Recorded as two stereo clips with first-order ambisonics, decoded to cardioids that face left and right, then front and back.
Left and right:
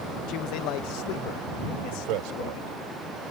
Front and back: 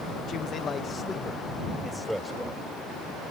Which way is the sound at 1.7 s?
95° right.